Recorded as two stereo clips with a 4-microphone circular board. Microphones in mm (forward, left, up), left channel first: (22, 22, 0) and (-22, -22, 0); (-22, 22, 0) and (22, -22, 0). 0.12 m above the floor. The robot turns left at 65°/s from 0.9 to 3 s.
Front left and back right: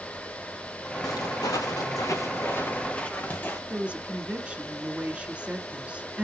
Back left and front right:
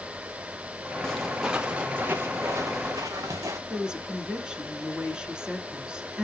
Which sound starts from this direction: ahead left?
Footsteps, at 1.0 s.